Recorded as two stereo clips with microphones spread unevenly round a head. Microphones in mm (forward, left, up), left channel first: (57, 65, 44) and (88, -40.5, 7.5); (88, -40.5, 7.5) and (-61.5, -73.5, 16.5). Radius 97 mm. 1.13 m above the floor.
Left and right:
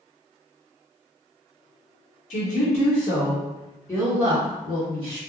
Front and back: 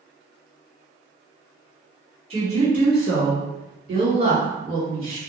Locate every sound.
2.3 s a woman speaking: 135° left, 1.0 m; by 5.2 s 130° right, 1.8 m